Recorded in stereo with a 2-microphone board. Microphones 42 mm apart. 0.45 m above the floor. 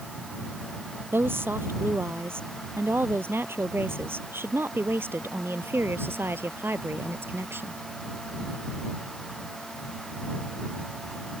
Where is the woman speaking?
80° right; by 7.8 s 85° right.